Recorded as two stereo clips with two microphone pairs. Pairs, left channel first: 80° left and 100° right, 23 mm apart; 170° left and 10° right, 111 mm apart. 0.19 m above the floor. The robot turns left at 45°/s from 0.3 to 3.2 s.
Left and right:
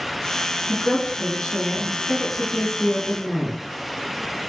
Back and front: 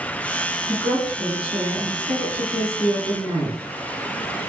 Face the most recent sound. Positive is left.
turn(degrees=10)